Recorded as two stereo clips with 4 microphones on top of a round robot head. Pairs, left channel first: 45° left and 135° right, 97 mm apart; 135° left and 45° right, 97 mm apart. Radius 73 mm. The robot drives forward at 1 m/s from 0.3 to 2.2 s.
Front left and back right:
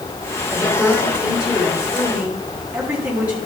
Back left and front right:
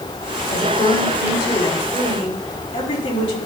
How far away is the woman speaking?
About 4.5 m.